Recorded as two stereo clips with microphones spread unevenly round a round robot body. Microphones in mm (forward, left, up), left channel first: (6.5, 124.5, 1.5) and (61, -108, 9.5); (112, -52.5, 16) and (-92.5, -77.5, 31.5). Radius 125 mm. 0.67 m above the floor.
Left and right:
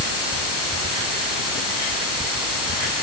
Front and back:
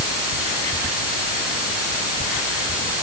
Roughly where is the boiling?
No boiling in this recording.